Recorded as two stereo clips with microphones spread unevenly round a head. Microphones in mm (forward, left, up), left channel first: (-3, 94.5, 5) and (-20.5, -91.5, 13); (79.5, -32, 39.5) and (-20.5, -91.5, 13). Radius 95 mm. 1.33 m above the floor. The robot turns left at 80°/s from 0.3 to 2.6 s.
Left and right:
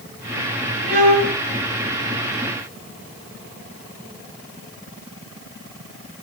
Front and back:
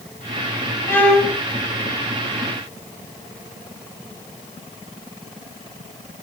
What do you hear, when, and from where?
0.9 s a violin: 35° right, 0.8 m; by 1.4 s 75° right, 0.8 m